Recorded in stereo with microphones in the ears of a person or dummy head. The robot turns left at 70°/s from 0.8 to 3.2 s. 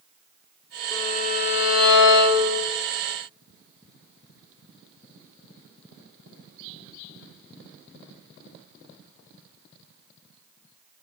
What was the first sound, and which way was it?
A violin, 160° left.